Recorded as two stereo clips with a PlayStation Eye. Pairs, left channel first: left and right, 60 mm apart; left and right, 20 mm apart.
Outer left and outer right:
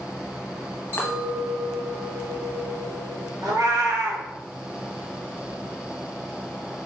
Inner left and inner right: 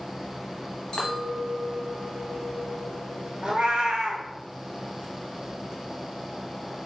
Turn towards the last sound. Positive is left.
turn(degrees=-80)